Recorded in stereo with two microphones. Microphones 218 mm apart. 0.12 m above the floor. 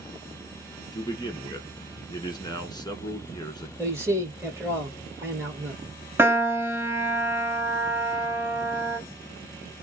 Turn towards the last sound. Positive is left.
turn(degrees=-10)  # may be behind; listen again after turning